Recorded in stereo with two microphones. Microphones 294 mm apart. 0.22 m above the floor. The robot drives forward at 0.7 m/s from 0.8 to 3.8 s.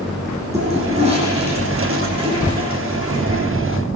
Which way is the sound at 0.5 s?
20° right (ahead or behind).